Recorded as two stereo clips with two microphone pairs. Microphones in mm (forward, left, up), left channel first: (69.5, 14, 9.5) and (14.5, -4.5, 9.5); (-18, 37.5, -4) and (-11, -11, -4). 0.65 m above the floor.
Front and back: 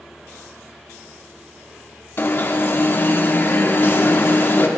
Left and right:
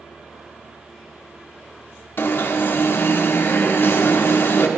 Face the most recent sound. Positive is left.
turn(degrees=65)